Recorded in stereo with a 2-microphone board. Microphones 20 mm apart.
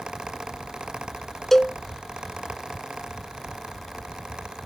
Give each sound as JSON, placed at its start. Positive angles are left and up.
{"t": 1.5, "sound": "a cowbell", "side_deg": 15}